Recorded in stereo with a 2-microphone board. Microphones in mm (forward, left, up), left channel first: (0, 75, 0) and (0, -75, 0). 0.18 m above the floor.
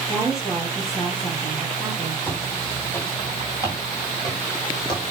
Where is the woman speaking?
15° left (ahead or behind), 5 m.